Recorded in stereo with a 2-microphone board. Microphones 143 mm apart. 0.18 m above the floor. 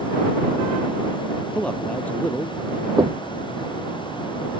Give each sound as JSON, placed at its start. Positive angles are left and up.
{"t": 1.6, "sound": "a man speaking", "side_deg": 10}
{"t": 3.0, "sound": "knocking", "side_deg": -30}